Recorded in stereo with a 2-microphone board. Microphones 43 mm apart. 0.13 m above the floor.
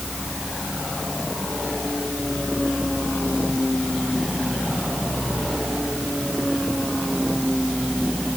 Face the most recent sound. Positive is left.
No sound to turn to.